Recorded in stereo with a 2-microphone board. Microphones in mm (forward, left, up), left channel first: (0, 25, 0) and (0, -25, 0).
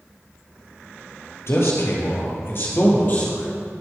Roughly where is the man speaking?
Left.